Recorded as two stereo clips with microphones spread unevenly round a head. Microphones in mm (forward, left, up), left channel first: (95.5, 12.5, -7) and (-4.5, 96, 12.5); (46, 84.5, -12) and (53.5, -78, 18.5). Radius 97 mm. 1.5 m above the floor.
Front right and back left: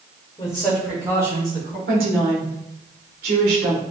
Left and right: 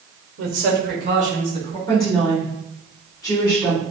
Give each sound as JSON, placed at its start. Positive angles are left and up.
{"t": 0.4, "sound": "a man speaking", "azimuth_deg": -105, "distance_m": 1.1}
{"t": 1.9, "sound": "a woman speaking", "azimuth_deg": 165, "distance_m": 1.5}